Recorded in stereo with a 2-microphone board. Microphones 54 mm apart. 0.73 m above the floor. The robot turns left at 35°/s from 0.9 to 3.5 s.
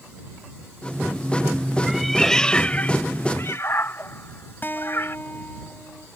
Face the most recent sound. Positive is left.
turn(degrees=40)  # may be behind; listen again after turning